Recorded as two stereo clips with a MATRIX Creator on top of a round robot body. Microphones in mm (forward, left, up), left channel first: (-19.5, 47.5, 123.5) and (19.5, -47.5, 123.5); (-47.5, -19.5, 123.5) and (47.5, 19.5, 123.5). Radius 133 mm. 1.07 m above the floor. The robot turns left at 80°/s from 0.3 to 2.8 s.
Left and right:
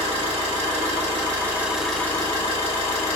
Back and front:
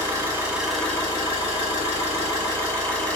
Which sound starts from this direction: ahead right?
An engine running, at 0.0 s.